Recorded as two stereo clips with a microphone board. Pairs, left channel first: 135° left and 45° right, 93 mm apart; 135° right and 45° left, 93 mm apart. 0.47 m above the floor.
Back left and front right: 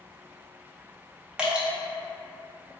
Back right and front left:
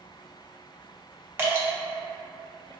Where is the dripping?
20° left, 0.7 m.